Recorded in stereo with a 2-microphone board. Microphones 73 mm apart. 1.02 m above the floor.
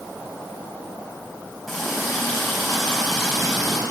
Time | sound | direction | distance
1.7 | a running tap | centre (ahead or behind) | 4.5 m